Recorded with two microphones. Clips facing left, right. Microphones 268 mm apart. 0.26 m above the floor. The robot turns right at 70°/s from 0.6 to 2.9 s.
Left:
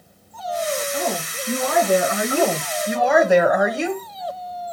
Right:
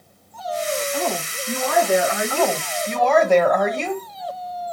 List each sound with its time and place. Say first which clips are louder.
0.9 s a woman speaking: even; 25° left, 1.4 m; by 2.6 s 140° left, 1.4 m
2.3 s a woman speaking: left 2 dB; 120° left, 1.1 m; by 4.0 s 160° left, 1.1 m